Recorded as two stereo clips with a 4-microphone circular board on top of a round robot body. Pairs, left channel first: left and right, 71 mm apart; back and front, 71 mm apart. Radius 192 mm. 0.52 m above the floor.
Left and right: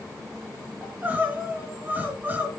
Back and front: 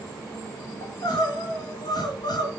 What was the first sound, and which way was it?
Crying, 155° right.